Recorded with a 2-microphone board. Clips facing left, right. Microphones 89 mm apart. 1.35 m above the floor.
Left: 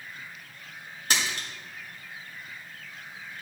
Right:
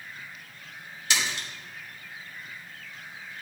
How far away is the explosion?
No explosion in this recording.